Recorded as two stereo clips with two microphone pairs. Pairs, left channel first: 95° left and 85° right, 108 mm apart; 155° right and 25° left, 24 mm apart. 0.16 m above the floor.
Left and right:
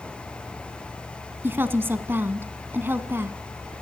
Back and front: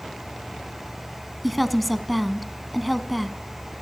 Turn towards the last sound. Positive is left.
turn(degrees=-65)